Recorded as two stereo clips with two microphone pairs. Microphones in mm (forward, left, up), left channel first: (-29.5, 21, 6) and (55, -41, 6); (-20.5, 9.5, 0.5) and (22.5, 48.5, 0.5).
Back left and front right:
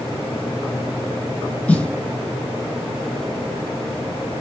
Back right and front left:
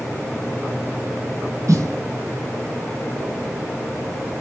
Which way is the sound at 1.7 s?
65° left.